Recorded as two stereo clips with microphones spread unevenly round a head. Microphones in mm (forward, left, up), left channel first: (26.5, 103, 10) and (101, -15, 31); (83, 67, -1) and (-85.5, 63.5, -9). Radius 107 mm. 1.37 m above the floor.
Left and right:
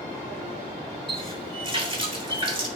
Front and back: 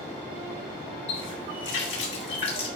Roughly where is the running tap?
Ahead.